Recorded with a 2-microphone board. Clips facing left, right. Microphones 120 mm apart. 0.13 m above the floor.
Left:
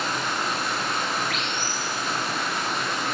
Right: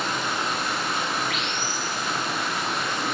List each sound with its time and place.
0.0 s running water: centre (ahead or behind), 2.5 m